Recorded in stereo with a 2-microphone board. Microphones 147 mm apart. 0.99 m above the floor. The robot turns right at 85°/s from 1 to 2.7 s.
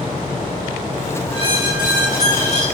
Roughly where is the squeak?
Ahead left.